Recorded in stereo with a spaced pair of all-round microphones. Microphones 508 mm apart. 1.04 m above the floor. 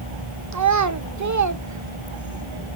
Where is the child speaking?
35° right (ahead or behind), 0.6 m.